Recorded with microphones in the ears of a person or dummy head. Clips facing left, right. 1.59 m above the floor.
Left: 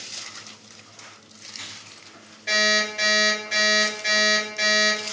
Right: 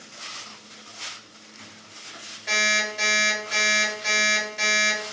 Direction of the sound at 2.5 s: 5° right (ahead or behind).